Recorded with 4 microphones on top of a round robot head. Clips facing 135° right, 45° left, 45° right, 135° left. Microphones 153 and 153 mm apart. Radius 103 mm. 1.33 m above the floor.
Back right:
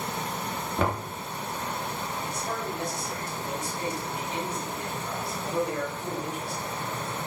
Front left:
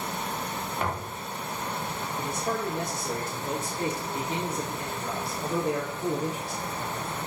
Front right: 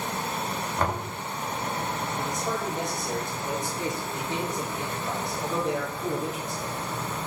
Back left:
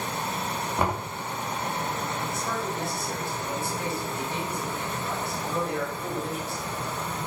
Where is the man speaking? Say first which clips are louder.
Front left 6 dB, front right 1 dB; 30° left, 4.5 m.